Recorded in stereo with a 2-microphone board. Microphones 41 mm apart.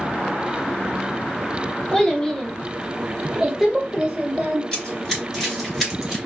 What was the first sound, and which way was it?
A child speaking, 20° left (ahead or behind).